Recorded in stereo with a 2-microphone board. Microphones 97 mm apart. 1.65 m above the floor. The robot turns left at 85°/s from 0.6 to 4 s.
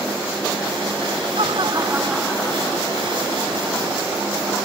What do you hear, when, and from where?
1.4 s laughter: 105° right; by 3.3 s 95° left